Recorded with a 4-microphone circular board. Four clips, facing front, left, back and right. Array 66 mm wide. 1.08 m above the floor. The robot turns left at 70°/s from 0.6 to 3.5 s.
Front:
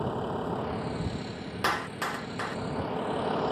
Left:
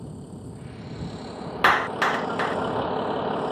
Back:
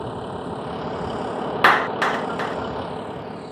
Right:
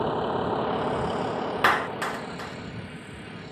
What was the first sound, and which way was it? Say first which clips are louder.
A vehicle: right 14 dB, back 2 dB; 95° right.